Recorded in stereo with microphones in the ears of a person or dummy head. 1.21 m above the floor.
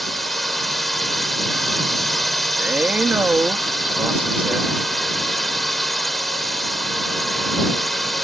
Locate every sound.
0.0 s a drone: centre (ahead or behind)
2.6 s a man speaking: 5° right (ahead or behind)